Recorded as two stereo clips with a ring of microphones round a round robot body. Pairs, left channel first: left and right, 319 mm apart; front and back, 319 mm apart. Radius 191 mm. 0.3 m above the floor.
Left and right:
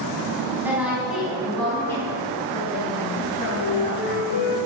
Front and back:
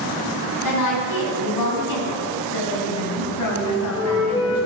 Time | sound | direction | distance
0.6 | a woman speaking | 5° right | 3.5 m
3.6 | a flute | 75° left | 3 m